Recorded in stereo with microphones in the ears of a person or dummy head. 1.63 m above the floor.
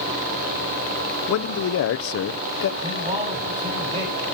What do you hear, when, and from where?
1.3 s a man speaking: 75° left (ahead or behind), 0.8 m
2.8 s a man speaking: 30° right (ahead or behind), 7 m